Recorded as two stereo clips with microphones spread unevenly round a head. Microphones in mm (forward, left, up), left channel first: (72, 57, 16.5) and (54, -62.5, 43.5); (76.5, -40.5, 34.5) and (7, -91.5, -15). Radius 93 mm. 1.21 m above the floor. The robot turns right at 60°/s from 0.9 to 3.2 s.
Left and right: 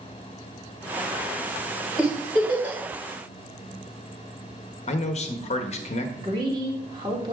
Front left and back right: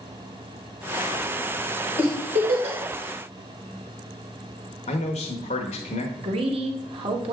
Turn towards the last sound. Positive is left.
turn(degrees=-165)